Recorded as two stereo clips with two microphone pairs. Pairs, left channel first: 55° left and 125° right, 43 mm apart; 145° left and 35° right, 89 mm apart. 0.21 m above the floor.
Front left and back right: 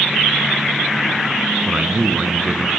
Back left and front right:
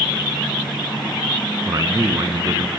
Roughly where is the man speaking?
Right.